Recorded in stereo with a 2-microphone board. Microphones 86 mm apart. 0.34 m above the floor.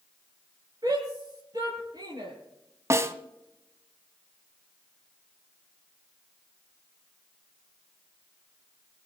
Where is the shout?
55° right (ahead or behind), 7.5 m; by 2.3 s 60° right (ahead or behind), 8 m.